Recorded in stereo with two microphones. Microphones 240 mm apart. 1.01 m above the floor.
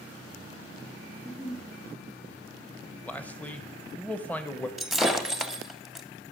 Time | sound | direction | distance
1.1 | a giggle | 25° left (ahead or behind) | 5 m
3.0 | a man speaking | 5° left (ahead or behind) | 0.8 m
4.8 | breaking glass | centre (ahead or behind) | 0.7 m